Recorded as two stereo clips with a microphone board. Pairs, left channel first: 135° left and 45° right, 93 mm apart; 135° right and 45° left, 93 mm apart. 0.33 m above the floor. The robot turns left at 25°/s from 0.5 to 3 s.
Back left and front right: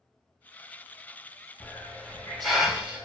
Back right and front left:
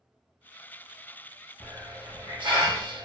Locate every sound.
1.6 s a hiss: 65° left, 0.8 m; by 3.0 s 30° left, 0.8 m